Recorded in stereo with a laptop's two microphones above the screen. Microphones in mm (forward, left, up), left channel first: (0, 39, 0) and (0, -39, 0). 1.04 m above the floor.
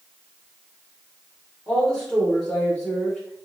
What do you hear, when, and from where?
1.7 s a woman speaking: 10° left (ahead or behind), 0.7 m